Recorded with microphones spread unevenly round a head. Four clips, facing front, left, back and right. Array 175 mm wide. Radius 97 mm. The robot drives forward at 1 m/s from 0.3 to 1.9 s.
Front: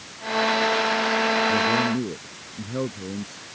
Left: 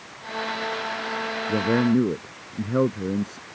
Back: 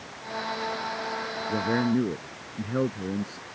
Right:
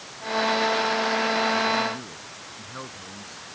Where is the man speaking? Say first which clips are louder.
Left 4 dB, front 3 dB; 100° left.